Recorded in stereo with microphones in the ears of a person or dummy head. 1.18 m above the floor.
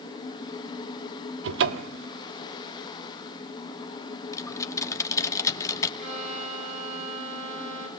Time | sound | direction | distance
1.4 | a cupboard door | 75° right (ahead or behind) | 1.3 m
4.3 | typing on a keyboard | 15° left (ahead or behind) | 2 m
6.0 | a violin | 50° right (ahead or behind) | 6 m